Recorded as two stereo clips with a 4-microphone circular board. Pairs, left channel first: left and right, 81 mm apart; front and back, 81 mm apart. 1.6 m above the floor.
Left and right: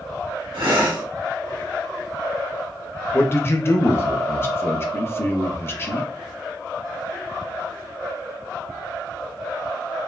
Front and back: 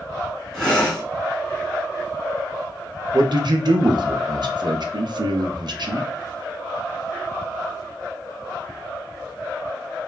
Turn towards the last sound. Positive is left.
turn(degrees=150)